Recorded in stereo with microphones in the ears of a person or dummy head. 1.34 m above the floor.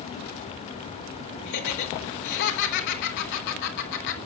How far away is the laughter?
About 4.5 m.